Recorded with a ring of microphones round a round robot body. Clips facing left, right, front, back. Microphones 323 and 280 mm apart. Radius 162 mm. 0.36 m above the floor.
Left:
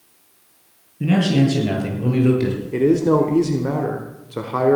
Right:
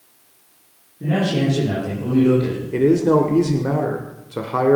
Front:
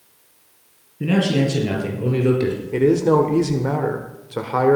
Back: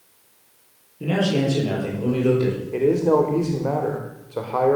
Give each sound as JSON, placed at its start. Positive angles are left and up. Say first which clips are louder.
{"t": 1.0, "sound": "a man speaking", "louder": "left 3 dB, front 3 dB", "azimuth_deg": 55, "distance_m": 7.5}
{"t": 2.7, "sound": "a man speaking", "louder": "right 1 dB, front 2 dB", "azimuth_deg": 5, "distance_m": 1.5}